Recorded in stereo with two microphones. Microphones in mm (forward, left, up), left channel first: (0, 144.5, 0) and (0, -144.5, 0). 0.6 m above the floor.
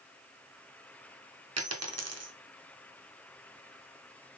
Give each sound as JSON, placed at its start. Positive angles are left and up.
{"t": 1.6, "sound": "a dropped coin", "side_deg": -60, "distance_m": 0.6}